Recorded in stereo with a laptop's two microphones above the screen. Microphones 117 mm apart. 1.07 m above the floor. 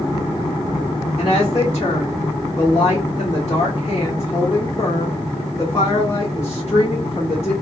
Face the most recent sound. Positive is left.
turn(degrees=65)  # may be behind; listen again after turning